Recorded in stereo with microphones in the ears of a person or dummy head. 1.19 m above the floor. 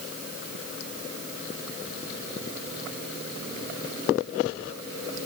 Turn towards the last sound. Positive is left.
No sound to turn to.